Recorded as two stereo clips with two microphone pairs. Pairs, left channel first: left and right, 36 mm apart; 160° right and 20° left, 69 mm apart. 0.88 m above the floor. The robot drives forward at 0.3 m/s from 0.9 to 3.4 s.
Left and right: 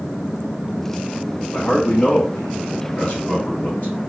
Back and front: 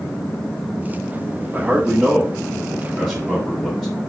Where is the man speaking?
65° left, 1.0 m; by 4.0 s 115° left, 1.0 m.